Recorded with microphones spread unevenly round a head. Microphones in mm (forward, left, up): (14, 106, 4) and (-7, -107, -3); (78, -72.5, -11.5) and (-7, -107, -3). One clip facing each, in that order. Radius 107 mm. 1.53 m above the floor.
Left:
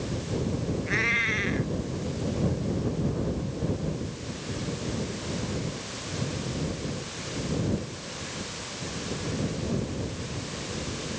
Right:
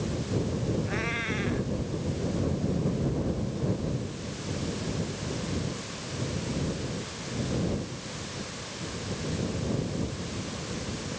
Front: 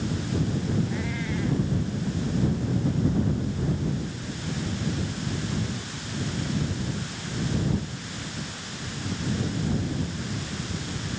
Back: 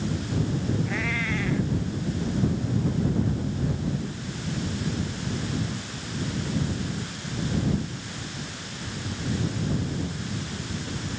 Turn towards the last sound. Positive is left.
turn(degrees=140)